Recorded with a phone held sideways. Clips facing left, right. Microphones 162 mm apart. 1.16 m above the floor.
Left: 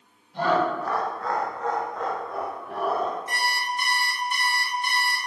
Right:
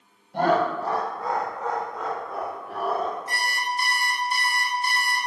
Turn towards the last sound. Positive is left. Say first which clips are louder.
# even
turn(degrees=-35)  # may be behind; listen again after turning